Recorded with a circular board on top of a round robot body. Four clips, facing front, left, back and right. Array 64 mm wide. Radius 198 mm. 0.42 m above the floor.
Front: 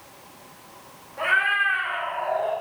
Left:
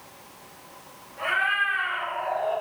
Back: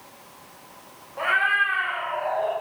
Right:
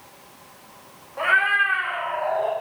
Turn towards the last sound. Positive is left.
turn(degrees=-110)